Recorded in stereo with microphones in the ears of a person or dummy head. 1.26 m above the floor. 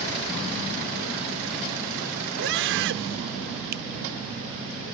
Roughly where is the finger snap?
Right.